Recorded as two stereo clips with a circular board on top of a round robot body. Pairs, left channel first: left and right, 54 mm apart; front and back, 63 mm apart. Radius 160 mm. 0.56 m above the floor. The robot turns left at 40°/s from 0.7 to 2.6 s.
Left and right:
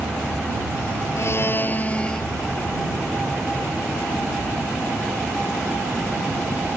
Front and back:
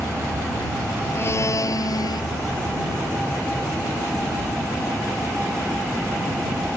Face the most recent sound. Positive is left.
turn(degrees=-5)